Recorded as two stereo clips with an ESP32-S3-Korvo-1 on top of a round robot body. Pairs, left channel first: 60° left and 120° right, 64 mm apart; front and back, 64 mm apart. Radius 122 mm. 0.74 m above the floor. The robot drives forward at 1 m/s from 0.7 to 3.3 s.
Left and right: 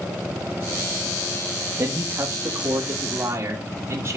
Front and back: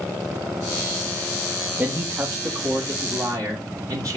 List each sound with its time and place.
1.8 s a man speaking: 130° right, 1.3 m; by 4.2 s 160° right, 2.5 m